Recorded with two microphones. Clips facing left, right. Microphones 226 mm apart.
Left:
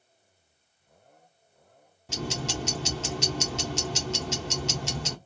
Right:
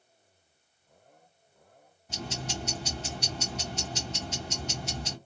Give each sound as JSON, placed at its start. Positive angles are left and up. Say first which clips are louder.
{"t": 2.1, "sound": "ticking", "louder": "left 5 dB", "side_deg": 75, "distance_m": 1.3}